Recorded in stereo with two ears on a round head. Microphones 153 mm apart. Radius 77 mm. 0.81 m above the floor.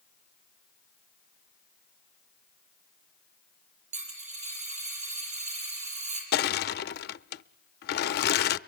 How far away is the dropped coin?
About 7.5 m.